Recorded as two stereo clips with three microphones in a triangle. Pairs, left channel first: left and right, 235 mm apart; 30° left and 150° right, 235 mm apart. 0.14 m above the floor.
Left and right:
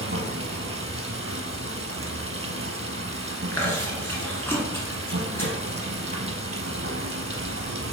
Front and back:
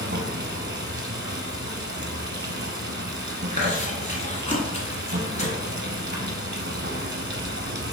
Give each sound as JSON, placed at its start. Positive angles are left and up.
{"t": 0.0, "sound": "running water", "azimuth_deg": -110, "distance_m": 0.8}
{"t": 3.5, "sound": "chewing", "azimuth_deg": 20, "distance_m": 1.2}